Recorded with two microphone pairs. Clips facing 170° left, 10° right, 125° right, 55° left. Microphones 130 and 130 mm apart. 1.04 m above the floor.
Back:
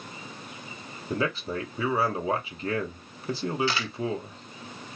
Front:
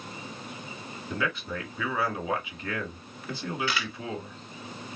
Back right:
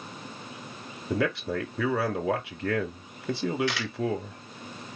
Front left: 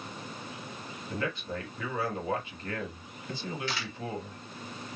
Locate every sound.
1.1 s a man speaking: 140° right, 2 m
3.7 s a camera shutter: 140° right, 1.9 m